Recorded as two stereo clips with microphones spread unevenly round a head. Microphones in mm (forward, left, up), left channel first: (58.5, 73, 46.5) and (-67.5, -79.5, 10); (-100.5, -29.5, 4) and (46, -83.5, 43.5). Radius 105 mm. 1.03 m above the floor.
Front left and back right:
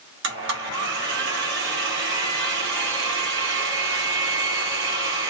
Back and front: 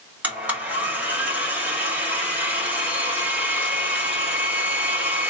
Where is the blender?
100° right, 1.6 m.